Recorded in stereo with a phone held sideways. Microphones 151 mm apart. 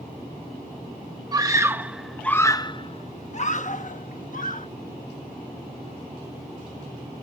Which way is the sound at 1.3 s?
25° right (ahead or behind).